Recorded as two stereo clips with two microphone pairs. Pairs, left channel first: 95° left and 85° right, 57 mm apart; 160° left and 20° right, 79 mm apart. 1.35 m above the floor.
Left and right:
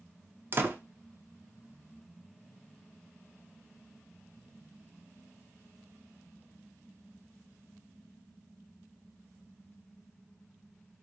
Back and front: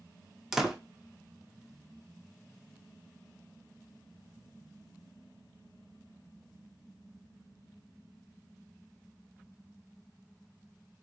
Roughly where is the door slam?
Right.